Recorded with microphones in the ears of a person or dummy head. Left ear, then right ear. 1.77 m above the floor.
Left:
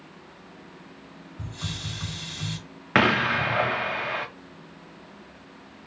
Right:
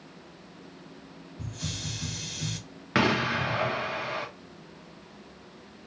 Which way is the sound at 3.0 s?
25° left (ahead or behind).